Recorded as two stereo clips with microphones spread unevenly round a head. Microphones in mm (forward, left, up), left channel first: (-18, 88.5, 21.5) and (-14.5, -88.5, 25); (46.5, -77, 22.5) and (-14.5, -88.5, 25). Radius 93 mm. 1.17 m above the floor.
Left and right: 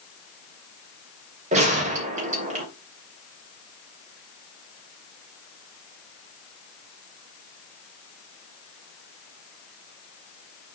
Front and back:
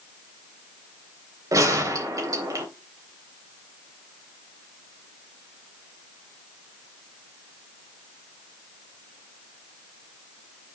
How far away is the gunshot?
About 3 m.